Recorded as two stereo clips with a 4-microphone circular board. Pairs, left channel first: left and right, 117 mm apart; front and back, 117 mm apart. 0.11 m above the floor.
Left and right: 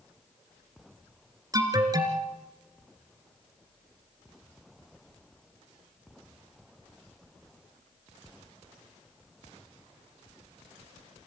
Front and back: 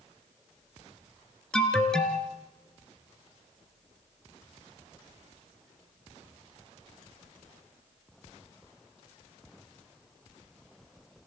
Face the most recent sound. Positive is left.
turn(degrees=-80)